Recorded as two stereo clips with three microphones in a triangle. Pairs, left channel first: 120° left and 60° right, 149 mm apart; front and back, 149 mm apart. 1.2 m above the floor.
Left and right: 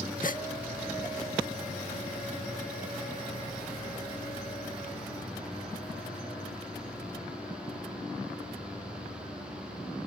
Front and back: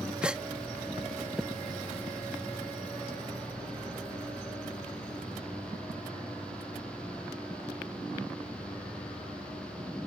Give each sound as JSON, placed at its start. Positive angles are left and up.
{"t": 0.2, "sound": "a gasp", "azimuth_deg": 95}